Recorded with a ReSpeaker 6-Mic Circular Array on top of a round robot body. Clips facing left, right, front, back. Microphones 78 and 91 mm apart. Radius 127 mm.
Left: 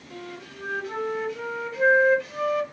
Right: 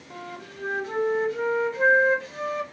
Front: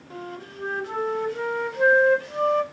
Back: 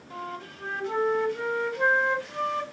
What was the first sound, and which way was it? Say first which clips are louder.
A flute: right 1 dB, front 1 dB; 45° right.